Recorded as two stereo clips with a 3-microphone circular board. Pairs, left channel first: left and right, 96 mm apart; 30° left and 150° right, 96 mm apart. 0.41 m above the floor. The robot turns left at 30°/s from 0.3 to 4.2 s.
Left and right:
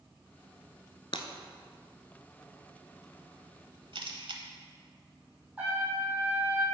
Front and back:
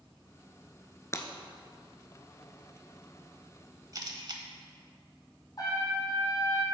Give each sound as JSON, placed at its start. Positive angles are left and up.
{"t": 1.1, "sound": "breaking glass", "azimuth_deg": 85, "distance_m": 0.7}
{"t": 3.9, "sound": "a camera shutter", "azimuth_deg": -105, "distance_m": 0.9}
{"t": 5.6, "sound": "a trumpet", "azimuth_deg": -15, "distance_m": 2.5}